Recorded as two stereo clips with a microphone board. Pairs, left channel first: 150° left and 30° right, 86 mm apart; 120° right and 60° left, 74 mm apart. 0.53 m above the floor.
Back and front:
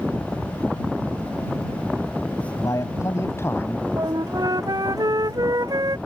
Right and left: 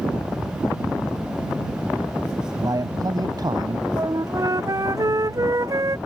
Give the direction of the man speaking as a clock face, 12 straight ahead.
9 o'clock.